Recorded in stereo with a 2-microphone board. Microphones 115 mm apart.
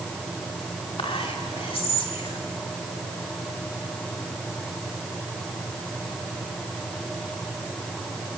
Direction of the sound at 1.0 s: 55° left (ahead or behind).